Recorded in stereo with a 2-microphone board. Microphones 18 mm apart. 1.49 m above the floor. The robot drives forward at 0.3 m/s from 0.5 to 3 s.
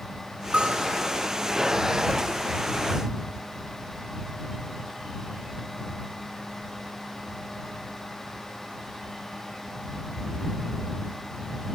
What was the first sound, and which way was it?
A bell, 75° right (ahead or behind).